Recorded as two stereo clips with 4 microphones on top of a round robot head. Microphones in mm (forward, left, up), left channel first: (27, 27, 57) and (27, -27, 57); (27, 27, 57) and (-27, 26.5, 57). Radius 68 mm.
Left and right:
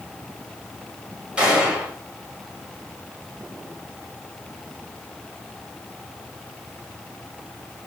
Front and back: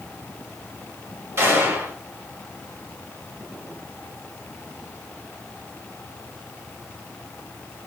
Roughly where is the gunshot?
Behind.